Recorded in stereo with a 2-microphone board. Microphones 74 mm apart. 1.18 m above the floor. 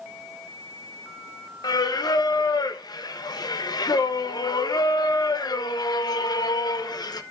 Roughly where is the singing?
Left.